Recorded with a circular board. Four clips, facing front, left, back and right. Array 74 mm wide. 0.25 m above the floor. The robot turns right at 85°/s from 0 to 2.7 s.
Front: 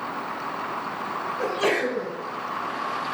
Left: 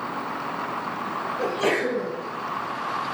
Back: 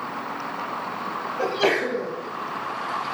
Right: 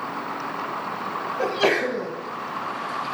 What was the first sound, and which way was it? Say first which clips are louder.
A sneeze: right 2 dB, back 2 dB; 155° right.